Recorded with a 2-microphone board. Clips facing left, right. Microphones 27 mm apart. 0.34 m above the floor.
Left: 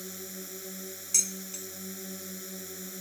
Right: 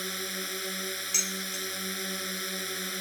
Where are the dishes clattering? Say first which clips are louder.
Left 2 dB; 25° right (ahead or behind).